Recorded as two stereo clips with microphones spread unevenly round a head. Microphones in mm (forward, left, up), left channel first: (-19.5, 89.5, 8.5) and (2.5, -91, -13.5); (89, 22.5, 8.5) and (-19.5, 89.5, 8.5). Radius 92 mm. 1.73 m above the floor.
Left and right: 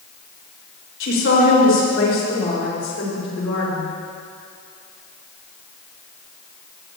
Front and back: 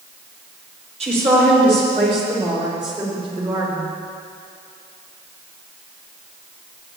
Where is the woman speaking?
115° left, 5.5 m; by 3.9 s 95° left, 6.5 m.